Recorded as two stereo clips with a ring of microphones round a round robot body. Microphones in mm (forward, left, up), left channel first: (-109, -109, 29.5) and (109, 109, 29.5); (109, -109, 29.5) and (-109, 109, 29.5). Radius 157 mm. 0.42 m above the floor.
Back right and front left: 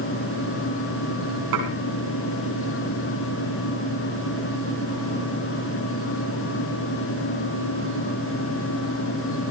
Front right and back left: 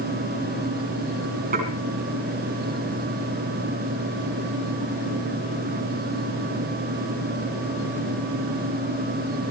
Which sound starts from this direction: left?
Dishes clattering, at 1.5 s.